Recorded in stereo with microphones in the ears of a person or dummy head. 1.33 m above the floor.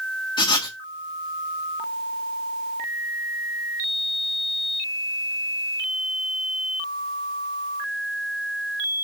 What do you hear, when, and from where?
0.4 s writing: 25° left (ahead or behind), 0.9 m